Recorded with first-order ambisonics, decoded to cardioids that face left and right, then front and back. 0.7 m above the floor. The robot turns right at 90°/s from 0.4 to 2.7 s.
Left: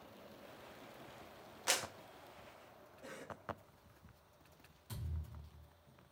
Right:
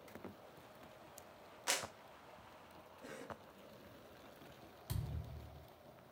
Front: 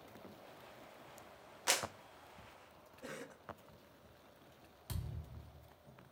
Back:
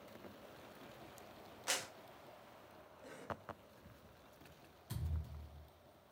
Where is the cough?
5° left, 0.6 m.